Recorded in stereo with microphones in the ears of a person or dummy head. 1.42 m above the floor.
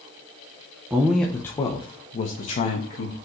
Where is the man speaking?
10° right (ahead or behind), 0.7 m; by 3.1 s 45° left (ahead or behind), 1.6 m.